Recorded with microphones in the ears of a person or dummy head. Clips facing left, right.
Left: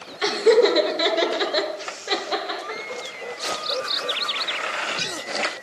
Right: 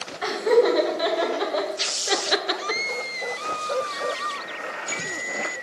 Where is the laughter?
35° left (ahead or behind), 1.9 m; by 3.0 s 55° right (ahead or behind), 0.8 m.